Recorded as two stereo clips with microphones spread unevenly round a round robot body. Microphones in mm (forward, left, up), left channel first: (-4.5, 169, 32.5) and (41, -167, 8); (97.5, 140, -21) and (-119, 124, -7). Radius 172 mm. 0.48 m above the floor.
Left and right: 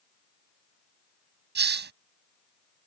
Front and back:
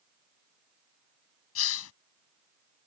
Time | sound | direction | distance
1.6 | a hiss | 25° right | ?